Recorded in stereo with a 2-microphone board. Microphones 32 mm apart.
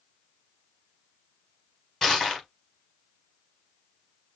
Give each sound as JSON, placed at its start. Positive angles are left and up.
{"t": 2.0, "sound": "crushing", "side_deg": 10, "distance_m": 3.0}